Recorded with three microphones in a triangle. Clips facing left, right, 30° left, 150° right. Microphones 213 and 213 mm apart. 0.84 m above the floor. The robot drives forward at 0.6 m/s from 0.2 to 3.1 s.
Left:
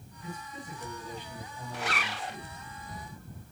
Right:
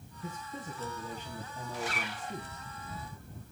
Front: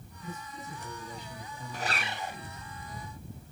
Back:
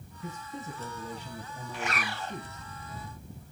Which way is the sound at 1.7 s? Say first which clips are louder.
Left 2 dB, back 1 dB; 70° left.